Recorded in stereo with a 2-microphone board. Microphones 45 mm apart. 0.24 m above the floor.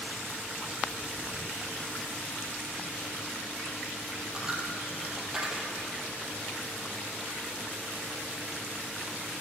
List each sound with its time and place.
4.3 s a dropped coin: 15° right (ahead or behind), 1.7 m